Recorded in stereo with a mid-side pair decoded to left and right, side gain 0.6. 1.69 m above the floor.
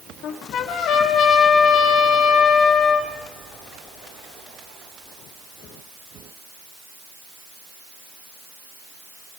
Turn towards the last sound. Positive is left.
turn(degrees=60)